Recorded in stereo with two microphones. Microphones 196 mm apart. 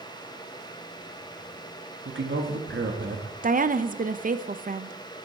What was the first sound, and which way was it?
A man speaking, 70° right (ahead or behind).